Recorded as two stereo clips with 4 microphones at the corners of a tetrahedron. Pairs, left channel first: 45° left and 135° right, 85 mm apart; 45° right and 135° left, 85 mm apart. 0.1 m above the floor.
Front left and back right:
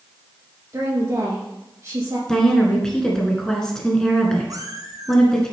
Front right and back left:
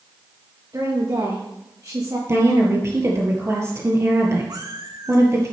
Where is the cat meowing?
Straight behind, 1.4 m.